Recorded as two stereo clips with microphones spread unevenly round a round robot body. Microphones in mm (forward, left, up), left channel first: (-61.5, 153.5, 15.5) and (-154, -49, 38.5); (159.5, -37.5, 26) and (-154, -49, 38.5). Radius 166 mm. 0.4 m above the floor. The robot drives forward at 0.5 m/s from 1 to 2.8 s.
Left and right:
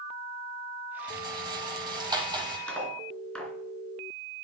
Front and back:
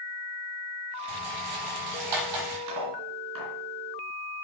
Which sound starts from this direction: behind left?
Cutlery clinking, at 2.7 s.